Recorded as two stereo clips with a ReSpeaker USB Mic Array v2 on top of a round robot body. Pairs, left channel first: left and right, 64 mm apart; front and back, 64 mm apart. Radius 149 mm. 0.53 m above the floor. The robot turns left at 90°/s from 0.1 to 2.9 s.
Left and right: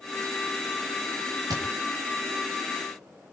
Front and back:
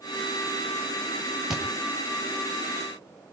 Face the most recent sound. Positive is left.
turn(degrees=140)